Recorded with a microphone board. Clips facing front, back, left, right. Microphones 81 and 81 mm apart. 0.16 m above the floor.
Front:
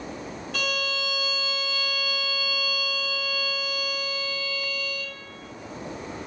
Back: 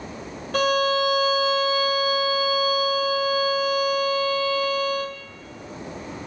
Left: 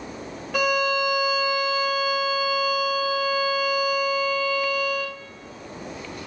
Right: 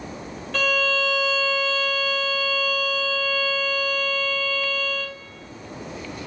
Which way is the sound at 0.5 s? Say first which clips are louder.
Back 11 dB, left 1 dB; 165° left.